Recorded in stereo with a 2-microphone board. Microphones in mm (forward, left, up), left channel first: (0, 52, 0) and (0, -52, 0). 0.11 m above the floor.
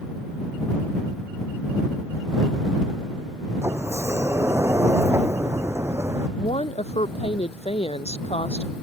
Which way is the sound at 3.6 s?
25° right (ahead or behind).